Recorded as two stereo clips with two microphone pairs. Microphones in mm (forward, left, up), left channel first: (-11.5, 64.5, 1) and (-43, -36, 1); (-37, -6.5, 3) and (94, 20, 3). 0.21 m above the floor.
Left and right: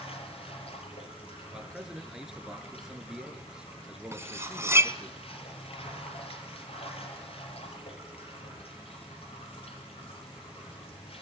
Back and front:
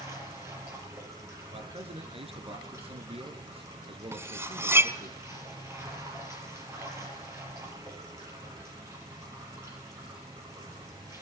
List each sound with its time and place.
0.0 s running water: 80° left, 6 m
1.5 s a man speaking: 25° right, 3.5 m
4.1 s cutlery clinking: 50° right, 1.0 m